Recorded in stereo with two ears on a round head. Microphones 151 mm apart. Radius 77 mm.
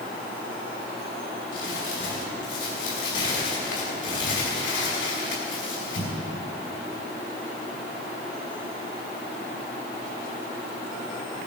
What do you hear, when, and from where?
1.5 s crumpling: 75° left (ahead or behind), 5.5 m